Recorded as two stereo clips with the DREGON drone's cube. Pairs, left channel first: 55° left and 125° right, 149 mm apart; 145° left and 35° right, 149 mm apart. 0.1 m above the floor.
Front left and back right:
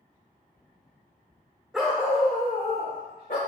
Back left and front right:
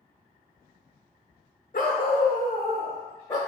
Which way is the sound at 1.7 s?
150° left.